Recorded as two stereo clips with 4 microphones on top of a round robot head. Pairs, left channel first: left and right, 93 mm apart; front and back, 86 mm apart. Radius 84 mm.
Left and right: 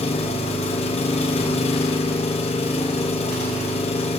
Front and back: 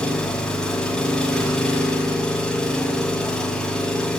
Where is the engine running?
80° left, 6 m.